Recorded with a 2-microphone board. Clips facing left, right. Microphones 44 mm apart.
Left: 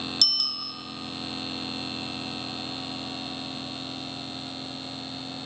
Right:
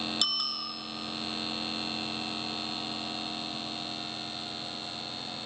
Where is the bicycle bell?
20° right (ahead or behind), 2.5 m.